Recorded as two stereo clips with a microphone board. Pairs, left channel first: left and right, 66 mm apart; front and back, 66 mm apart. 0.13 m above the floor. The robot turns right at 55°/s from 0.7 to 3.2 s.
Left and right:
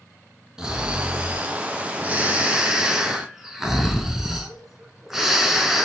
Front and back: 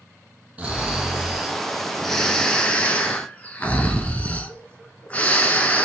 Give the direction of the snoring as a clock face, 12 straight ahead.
5 o'clock.